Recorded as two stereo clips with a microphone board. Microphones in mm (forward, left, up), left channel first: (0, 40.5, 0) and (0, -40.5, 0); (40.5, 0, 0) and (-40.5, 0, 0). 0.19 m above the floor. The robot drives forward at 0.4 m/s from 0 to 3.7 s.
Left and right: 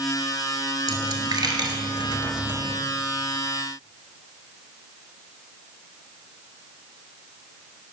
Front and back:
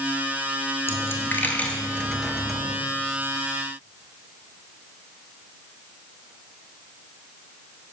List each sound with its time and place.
0.9 s a dropped coin: 55° right, 1.1 m; by 2.8 s 100° right, 0.9 m